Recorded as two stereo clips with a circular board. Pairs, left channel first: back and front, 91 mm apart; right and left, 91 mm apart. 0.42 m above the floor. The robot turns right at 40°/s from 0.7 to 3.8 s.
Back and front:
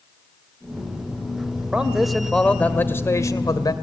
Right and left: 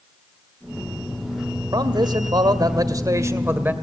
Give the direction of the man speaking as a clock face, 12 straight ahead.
10 o'clock.